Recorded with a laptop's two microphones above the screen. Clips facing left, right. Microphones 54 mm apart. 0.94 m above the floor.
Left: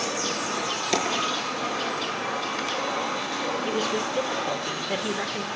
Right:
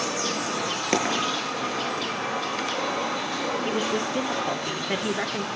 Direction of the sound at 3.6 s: 25° right (ahead or behind).